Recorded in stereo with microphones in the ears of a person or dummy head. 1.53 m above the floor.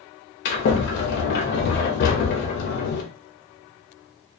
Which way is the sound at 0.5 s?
60° left (ahead or behind).